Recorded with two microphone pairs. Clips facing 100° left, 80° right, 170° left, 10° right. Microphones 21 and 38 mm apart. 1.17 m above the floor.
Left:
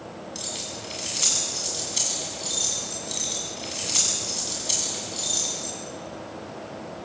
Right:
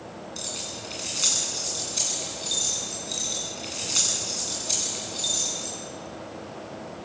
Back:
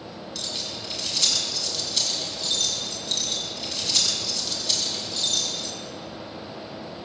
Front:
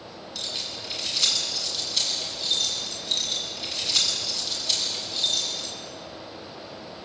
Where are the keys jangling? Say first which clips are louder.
Left 1 dB, even; 75° left, 7 m.